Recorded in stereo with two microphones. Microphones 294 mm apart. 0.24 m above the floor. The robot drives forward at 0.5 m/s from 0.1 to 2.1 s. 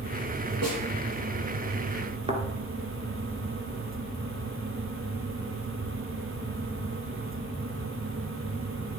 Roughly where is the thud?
Right.